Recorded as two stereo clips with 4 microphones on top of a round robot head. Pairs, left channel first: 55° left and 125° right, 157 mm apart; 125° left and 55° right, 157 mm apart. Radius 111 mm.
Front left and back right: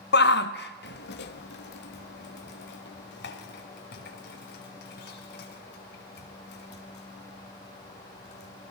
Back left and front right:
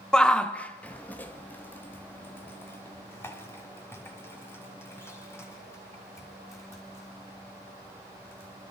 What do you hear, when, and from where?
0.1 s a shout: 40° left, 1.6 m; by 8.7 s 50° left, 10.5 m